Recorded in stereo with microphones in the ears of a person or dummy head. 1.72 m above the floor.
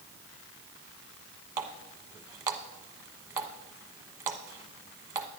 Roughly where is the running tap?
Centre.